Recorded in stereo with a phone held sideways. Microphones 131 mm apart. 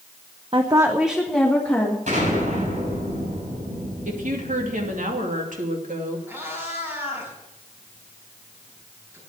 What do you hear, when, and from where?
0.5 s a woman speaking: 45° right (ahead or behind), 0.8 m; by 2.0 s 15° left (ahead or behind), 2.5 m
2.1 s an explosion: 70° right (ahead or behind), 6.5 m
4.0 s a woman speaking: 80° right, 2.5 m
6.3 s a cat meowing: 20° right (ahead or behind), 4.5 m